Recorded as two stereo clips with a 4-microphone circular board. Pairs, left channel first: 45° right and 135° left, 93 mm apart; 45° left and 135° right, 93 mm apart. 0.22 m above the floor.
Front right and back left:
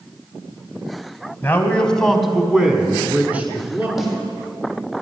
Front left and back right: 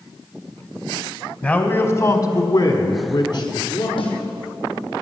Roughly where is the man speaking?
Ahead.